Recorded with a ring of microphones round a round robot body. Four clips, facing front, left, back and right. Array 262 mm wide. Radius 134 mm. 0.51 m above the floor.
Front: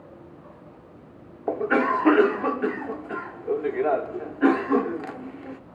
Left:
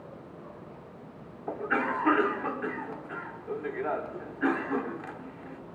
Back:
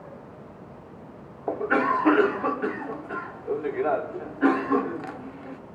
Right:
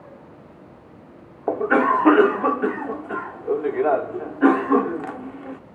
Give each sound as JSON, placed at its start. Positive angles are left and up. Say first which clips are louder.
{"t": 1.5, "sound": "a cough", "louder": "right 11 dB, front 1 dB", "azimuth_deg": -75, "distance_m": 1.0}